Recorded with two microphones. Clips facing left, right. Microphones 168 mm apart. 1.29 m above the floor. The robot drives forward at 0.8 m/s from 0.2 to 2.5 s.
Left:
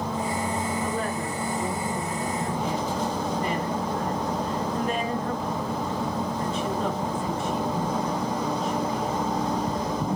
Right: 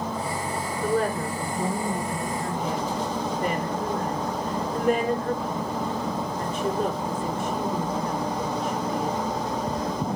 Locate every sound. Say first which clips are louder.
0.8 s a woman speaking: right 4 dB; 70° right (ahead or behind), 4.5 m; by 9.2 s 55° right (ahead or behind), 5 m